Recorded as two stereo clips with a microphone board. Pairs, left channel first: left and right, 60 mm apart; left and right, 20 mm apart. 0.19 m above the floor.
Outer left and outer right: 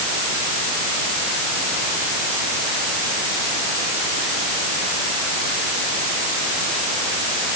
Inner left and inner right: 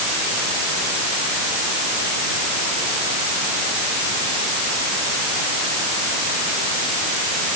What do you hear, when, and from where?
Only background noise.